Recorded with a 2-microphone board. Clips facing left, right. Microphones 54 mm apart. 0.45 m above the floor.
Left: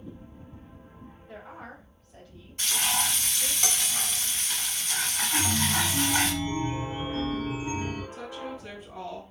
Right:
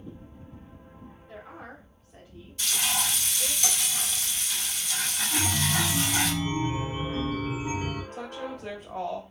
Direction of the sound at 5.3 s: 45° right (ahead or behind).